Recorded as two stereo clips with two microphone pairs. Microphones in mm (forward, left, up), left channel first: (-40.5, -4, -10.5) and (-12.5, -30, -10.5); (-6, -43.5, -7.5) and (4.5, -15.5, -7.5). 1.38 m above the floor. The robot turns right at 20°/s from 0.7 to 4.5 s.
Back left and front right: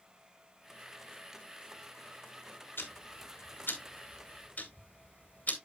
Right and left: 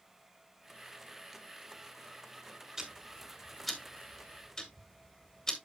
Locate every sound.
2.8 s ticking: 150° left, 1.8 m; by 5.5 s 175° right, 1.8 m